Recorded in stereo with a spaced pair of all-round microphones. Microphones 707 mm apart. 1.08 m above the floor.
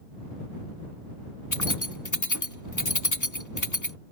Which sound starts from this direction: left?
Keys jangling, at 1.5 s.